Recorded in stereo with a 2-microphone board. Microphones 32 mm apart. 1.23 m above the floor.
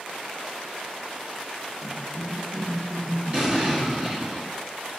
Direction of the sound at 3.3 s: 30° right (ahead or behind).